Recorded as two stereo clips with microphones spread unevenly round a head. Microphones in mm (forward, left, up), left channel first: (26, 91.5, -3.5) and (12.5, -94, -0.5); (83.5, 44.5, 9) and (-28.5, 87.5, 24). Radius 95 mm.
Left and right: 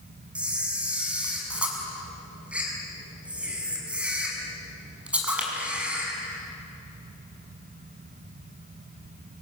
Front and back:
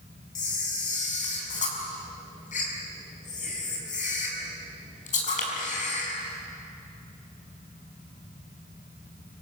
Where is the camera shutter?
10° right, 6 m.